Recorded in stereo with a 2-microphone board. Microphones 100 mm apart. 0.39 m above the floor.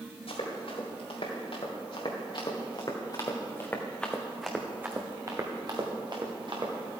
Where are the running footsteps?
70° left (ahead or behind), 4.5 m; by 6.7 s 55° right (ahead or behind), 3 m.